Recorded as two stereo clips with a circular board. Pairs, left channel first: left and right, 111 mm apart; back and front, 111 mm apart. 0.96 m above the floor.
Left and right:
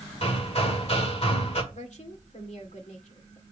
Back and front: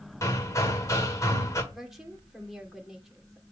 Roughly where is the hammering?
Behind left.